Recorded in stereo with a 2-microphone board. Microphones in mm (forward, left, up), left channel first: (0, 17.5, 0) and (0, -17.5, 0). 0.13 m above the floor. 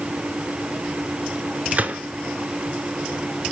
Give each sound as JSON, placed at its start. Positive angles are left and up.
{"t": 1.7, "sound": "a gunshot", "side_deg": -45, "distance_m": 0.7}